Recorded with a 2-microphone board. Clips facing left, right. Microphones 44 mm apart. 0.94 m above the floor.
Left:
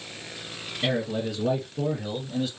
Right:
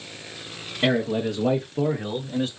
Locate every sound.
0.8 s a man speaking: 40° right (ahead or behind), 0.9 m; by 2.5 s 45° right (ahead or behind), 1.4 m